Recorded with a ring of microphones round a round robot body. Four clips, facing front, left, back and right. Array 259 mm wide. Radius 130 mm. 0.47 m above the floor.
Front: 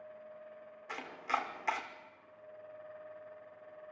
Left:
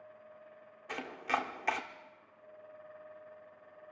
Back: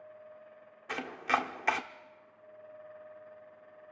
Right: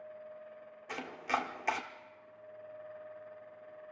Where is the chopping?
175° left, 1.4 m.